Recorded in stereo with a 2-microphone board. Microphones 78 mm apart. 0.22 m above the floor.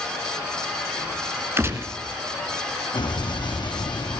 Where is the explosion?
80° left, 3 m.